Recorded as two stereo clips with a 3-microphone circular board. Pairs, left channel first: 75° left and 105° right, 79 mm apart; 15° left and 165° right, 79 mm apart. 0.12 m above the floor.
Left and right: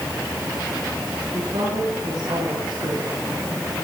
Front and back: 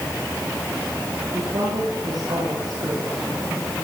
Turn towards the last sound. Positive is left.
turn(degrees=-125)